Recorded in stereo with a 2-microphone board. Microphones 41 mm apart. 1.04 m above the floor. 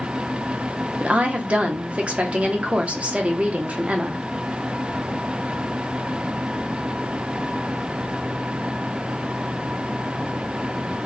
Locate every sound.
1.0 s a woman speaking: 35° right (ahead or behind), 0.6 m